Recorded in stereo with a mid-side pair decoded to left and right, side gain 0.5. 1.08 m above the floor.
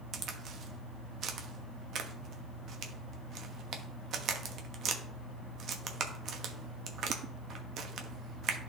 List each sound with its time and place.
0.1 s a crack: 60° right, 1.1 m